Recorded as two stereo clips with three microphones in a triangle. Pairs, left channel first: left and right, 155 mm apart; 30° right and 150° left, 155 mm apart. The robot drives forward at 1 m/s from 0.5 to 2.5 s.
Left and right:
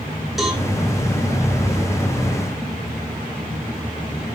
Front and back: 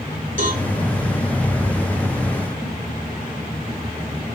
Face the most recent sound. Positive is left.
turn(degrees=180)